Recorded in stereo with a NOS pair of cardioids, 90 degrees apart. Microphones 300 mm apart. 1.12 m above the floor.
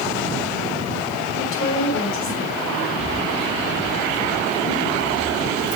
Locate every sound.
1.4 s a woman speaking: 45° left, 4.5 m
3.0 s keys jangling: 25° left, 1.7 m